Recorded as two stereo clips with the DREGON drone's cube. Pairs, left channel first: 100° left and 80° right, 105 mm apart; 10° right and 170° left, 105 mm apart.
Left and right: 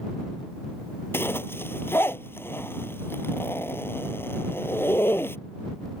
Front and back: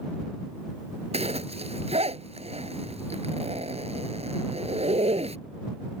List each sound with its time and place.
1.1 s a zipper: 170° left